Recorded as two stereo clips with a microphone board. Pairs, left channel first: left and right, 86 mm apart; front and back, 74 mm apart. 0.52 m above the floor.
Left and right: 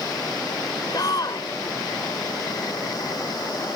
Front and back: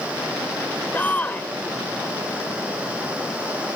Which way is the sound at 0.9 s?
65° left.